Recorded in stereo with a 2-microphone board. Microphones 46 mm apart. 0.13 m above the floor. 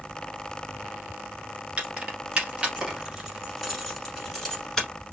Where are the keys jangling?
25° right (ahead or behind), 1.4 m; by 4.9 s 15° left (ahead or behind), 1.3 m.